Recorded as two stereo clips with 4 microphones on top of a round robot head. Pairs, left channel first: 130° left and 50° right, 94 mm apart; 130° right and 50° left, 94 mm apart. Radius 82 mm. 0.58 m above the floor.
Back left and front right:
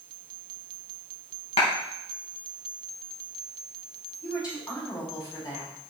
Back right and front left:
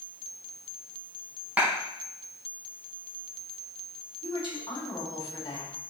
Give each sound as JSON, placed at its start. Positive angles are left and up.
{"t": 1.6, "sound": "a clap", "azimuth_deg": 125, "distance_m": 4.0}
{"t": 4.2, "sound": "a woman speaking", "azimuth_deg": -175, "distance_m": 4.0}